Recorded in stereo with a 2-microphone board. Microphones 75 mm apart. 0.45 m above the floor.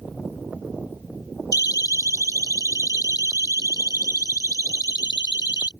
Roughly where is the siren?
Left.